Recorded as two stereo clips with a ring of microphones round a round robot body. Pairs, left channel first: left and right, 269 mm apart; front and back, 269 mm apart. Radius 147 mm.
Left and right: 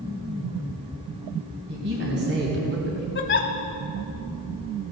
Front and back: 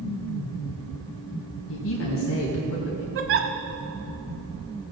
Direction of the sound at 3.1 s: 140° left.